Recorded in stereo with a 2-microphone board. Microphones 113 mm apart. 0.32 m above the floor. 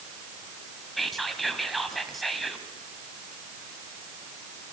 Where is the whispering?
Centre (ahead or behind), 2.5 m.